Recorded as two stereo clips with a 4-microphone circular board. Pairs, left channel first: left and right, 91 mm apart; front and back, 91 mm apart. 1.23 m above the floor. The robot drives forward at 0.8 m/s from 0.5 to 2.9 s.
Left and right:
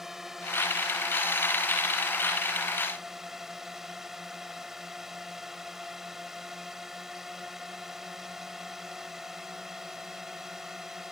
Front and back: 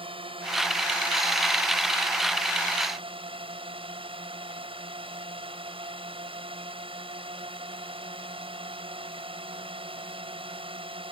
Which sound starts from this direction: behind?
A drone, at 0.0 s.